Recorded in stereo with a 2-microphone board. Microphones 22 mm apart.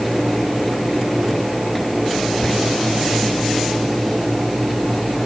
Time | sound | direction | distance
2.4 | whispering | 30° left (ahead or behind) | 0.7 m